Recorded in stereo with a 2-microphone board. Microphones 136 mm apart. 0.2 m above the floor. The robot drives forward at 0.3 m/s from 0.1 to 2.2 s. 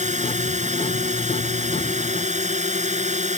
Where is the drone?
60° right (ahead or behind); by 3.4 s 55° right (ahead or behind).